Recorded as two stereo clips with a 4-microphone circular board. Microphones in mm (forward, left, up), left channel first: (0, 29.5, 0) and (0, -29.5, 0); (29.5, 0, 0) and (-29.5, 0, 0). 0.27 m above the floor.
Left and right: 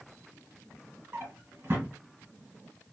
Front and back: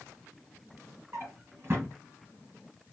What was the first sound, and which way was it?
A drawer, 135° right.